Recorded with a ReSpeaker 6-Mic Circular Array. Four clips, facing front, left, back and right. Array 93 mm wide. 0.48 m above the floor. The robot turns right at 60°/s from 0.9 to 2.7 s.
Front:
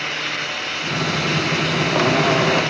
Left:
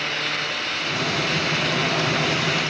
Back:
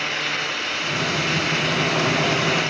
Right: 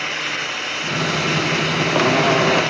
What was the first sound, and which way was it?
Only background noise.